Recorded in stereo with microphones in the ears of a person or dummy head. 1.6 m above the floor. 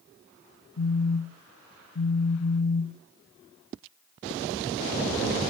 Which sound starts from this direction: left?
A phone buzzing, at 0.8 s.